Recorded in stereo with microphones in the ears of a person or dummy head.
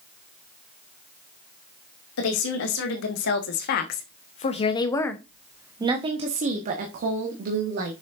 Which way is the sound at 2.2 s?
75° left (ahead or behind).